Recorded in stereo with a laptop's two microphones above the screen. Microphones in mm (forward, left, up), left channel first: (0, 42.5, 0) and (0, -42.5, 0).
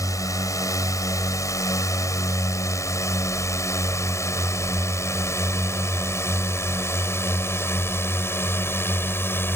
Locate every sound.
0.0 s a drone: 45° left (ahead or behind); by 9.6 s 30° left (ahead or behind)